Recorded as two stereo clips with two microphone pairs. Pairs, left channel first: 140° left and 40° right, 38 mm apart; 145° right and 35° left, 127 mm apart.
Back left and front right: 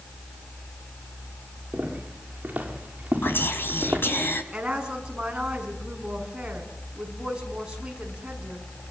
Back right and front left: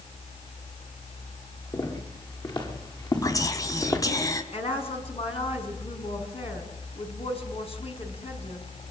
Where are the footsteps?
90° right, 9.5 m; by 4.0 s 85° right, 6.5 m.